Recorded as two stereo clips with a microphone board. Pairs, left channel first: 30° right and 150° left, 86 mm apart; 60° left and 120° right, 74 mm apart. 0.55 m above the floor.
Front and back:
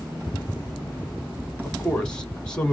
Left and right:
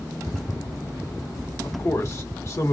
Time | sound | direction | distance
1.6 | a man speaking | 45° left | 0.9 m